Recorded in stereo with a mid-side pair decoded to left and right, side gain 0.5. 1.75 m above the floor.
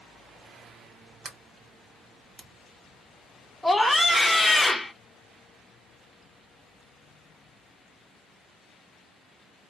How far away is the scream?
About 0.8 m.